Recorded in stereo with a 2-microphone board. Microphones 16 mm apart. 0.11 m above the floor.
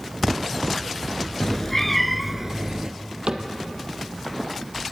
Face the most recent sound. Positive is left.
turn(degrees=-70)  # may be behind; listen again after turning